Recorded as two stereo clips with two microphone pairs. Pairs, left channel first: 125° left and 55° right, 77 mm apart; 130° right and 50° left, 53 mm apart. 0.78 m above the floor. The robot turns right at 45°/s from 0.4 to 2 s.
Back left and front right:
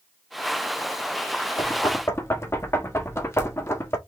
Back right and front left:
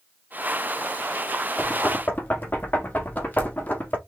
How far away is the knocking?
About 1.6 m.